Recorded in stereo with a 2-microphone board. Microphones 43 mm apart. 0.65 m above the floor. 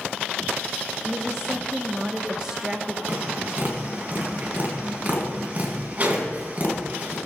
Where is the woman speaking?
15° right (ahead or behind), 1.0 m.